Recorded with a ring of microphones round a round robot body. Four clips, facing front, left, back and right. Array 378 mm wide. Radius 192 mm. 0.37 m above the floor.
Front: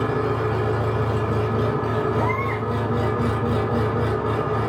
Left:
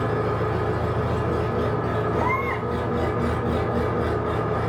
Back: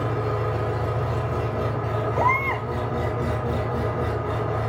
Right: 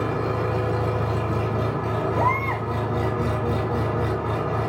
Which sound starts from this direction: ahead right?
An engine running, at 0.0 s.